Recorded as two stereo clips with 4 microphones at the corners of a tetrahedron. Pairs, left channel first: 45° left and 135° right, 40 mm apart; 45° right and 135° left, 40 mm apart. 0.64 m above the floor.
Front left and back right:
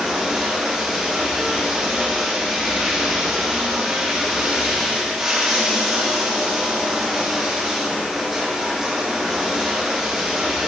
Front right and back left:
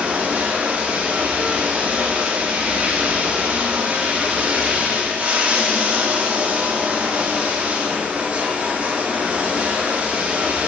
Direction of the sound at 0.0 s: 145° left.